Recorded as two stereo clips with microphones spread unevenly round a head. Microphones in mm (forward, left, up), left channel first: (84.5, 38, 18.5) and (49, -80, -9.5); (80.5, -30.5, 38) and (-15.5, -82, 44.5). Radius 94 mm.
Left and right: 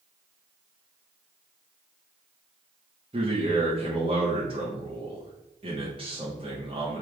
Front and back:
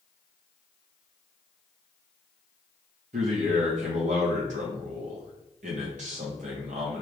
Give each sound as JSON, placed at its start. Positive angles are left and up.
{"t": 3.1, "sound": "a man speaking", "azimuth_deg": -175, "distance_m": 1.2}